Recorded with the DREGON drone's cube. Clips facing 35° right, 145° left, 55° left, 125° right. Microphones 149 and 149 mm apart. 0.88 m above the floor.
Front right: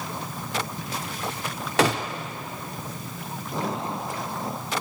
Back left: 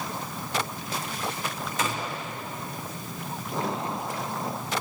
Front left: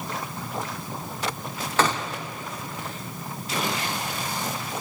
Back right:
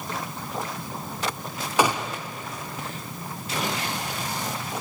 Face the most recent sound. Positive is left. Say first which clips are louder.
# front right 9 dB, back right 2 dB
turn(degrees=-45)